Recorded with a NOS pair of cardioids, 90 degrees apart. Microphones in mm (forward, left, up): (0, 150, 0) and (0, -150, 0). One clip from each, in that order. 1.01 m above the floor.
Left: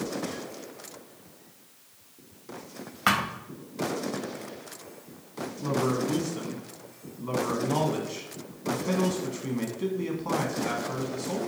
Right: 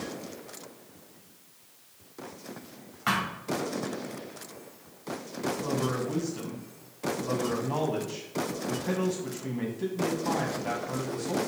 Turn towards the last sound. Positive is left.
turn(degrees=0)